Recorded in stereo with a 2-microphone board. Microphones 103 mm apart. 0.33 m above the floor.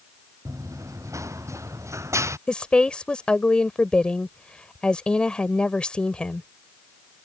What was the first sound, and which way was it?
Running footsteps, 30° right (ahead or behind).